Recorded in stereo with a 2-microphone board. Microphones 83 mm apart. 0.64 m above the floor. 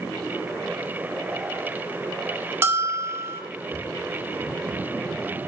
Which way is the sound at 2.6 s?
25° right (ahead or behind).